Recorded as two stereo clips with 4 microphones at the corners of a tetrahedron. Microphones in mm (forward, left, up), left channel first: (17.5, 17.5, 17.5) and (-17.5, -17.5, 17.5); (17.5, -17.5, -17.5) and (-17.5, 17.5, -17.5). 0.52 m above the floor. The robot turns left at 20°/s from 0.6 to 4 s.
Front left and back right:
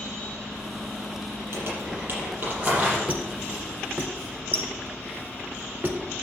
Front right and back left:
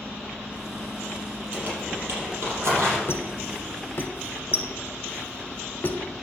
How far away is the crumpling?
About 5.5 m.